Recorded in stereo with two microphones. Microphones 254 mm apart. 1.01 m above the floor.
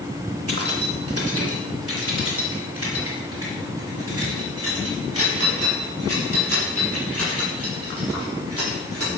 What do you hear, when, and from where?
0.5 s keys jangling: 65° right (ahead or behind), 2 m; by 9.1 s 70° right (ahead or behind), 10 m